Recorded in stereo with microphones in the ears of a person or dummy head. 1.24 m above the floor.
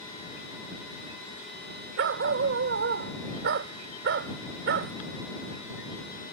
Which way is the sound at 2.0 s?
45° right (ahead or behind).